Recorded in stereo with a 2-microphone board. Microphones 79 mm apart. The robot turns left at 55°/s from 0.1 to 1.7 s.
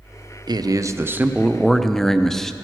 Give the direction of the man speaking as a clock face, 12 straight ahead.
4 o'clock.